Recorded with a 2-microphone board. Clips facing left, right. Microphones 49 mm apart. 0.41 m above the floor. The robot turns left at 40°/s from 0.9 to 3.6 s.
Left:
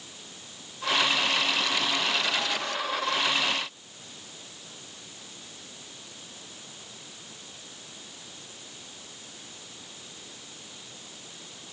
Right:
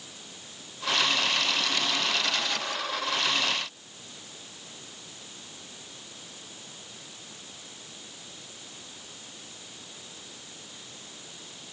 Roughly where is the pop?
No pop in this recording.